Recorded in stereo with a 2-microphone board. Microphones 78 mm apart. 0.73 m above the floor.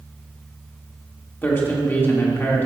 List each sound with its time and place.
1.4 s a man speaking: 25° left (ahead or behind), 1.5 m